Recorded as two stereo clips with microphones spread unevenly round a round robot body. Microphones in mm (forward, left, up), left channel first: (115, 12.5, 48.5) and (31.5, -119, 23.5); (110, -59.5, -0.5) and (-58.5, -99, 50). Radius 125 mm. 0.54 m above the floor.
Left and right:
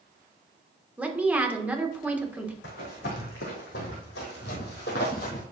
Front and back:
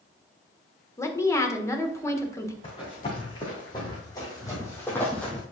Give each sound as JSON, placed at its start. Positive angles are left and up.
{"t": 1.0, "sound": "a woman speaking", "azimuth_deg": -50, "distance_m": 1.5}
{"t": 2.6, "sound": "running footsteps", "azimuth_deg": 85, "distance_m": 2.5}